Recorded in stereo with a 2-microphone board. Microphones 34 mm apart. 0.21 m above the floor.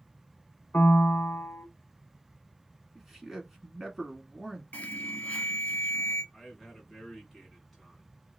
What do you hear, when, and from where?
0.7 s a piano: 55° left (ahead or behind), 0.6 m
3.0 s a man speaking: 10° right (ahead or behind), 1.8 m
4.7 s an alarm: 45° left (ahead or behind), 0.9 m
6.3 s a man speaking: 5° left (ahead or behind), 2 m